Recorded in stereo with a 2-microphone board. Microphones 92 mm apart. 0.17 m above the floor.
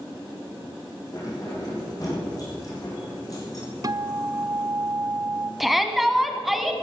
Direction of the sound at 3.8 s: 45° right (ahead or behind).